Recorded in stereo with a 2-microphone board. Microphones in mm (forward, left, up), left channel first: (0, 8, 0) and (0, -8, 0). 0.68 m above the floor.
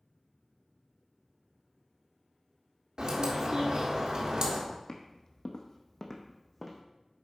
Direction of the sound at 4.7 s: 55° left (ahead or behind).